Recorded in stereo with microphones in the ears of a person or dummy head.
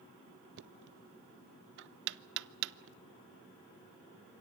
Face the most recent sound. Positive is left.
turn(degrees=-65)  # may be behind; listen again after turning